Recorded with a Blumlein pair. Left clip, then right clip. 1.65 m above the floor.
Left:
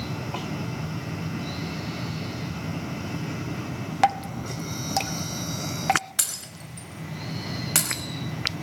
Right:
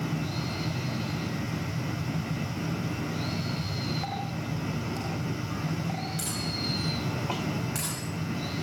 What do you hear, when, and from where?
4.0 s dripping: 50° left, 1.6 m
6.2 s breaking glass: 35° left, 5 m